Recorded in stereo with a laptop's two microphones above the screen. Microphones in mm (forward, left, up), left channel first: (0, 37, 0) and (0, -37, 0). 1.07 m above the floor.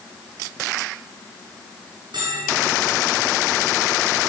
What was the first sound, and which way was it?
A bell, 85° right.